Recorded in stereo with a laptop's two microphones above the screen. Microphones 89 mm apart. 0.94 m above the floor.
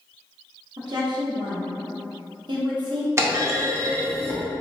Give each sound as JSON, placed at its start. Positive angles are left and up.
{"t": 0.8, "sound": "a woman speaking", "side_deg": -55, "distance_m": 1.1}
{"t": 3.2, "sound": "a clunk", "side_deg": -30, "distance_m": 0.6}